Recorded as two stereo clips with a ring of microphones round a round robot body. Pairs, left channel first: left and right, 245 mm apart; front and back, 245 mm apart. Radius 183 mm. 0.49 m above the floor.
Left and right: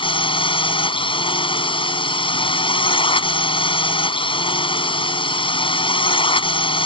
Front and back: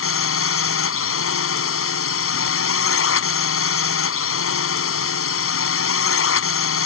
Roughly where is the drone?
Ahead.